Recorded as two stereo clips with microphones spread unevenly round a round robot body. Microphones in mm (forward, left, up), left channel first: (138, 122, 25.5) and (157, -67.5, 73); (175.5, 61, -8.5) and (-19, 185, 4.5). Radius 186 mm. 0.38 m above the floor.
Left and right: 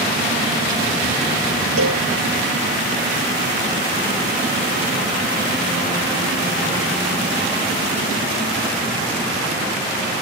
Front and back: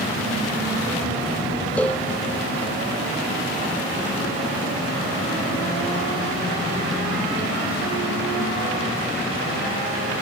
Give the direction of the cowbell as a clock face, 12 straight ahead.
4 o'clock.